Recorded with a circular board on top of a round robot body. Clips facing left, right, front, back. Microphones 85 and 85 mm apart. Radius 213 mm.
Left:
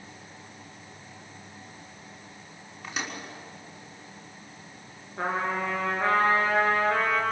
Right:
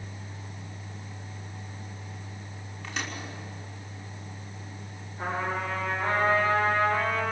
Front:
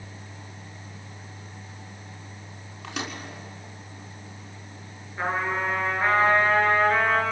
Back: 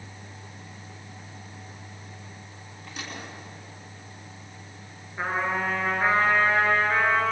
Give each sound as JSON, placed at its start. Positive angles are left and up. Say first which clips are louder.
{"t": 2.8, "sound": "a microwave", "louder": "left 1 dB, front 5 dB", "azimuth_deg": 10, "distance_m": 5.5}
{"t": 5.2, "sound": "a trumpet", "louder": "left 2 dB, even", "azimuth_deg": 95, "distance_m": 6.0}